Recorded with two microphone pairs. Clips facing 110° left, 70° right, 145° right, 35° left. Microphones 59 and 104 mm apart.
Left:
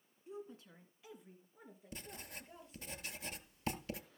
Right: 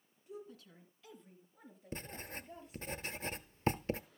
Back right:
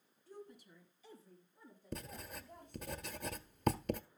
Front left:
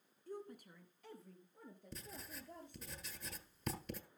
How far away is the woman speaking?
About 2 m.